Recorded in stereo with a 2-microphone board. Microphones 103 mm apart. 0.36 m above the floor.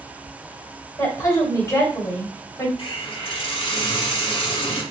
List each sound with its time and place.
1.0 s a woman speaking: 35° left (ahead or behind), 1.8 m
2.8 s a hiss: 65° left (ahead or behind), 2 m